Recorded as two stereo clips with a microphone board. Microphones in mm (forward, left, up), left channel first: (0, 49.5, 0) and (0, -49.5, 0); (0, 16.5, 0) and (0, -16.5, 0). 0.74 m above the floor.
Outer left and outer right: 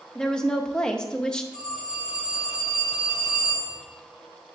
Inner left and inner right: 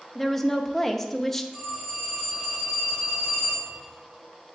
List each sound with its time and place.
0.1 s a woman speaking: 10° left (ahead or behind), 0.5 m
1.5 s a phone ringing: 15° right (ahead or behind), 3 m